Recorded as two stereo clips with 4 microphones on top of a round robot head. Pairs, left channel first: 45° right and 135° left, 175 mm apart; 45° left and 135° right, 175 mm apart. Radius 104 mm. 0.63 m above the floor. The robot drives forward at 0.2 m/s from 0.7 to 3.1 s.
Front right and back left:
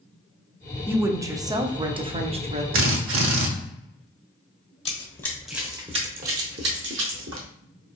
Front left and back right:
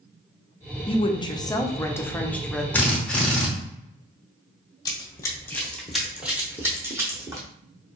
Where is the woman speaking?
65° left, 0.6 m; by 2.6 s 130° left, 0.6 m.